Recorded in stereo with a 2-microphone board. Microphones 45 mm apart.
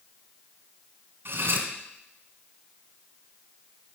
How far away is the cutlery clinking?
About 1.6 m.